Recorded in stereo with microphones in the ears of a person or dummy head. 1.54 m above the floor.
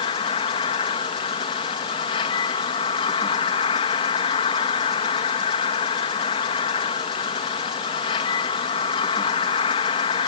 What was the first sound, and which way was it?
An insect, 30° left (ahead or behind).